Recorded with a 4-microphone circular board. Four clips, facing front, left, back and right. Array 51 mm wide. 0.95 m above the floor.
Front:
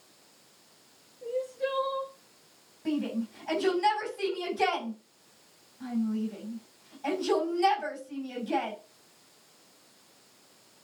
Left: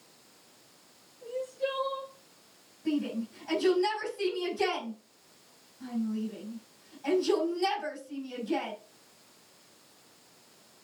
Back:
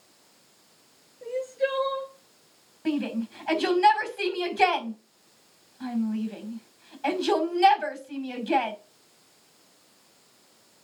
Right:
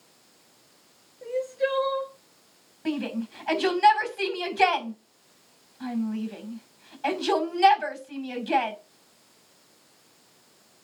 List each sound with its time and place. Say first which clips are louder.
1.2 s crying: right 6 dB, back 4 dB; 135° right, 6 m
2.9 s a shout: right 2 dB, back 3 dB; 140° right, 5 m